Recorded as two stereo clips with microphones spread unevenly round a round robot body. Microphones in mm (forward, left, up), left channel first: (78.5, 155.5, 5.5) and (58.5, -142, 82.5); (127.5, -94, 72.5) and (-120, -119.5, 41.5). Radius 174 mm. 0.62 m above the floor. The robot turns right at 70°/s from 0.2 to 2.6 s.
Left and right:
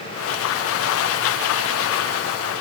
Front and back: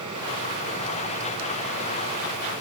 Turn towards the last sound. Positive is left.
No sound to turn to.